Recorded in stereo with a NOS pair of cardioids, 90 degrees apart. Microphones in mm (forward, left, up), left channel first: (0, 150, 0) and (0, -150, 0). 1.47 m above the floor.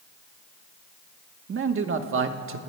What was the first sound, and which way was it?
A man speaking, 45° right.